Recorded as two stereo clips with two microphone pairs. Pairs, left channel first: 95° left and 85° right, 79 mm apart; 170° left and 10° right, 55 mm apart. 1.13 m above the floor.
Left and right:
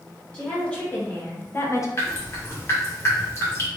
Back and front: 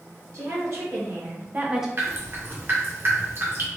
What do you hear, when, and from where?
0.3 s a woman speaking: 15° left, 1.9 m; by 1.9 s 75° left, 0.6 m
2.0 s dripping: 40° left, 1.1 m